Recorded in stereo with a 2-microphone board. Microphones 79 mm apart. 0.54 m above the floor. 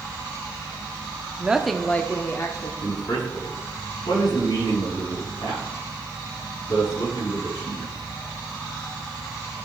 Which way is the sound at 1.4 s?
15° right (ahead or behind).